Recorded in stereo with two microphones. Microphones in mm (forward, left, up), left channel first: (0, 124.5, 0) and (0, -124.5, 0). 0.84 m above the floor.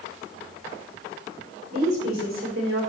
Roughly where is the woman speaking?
Right.